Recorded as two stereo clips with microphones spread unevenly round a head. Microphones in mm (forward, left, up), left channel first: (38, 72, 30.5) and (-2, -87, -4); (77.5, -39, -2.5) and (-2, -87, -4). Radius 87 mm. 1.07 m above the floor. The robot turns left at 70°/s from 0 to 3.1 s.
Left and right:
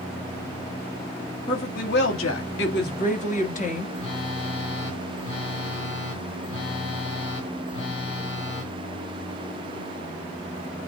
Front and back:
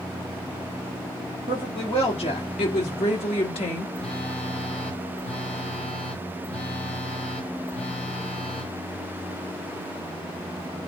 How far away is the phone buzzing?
About 2.5 m.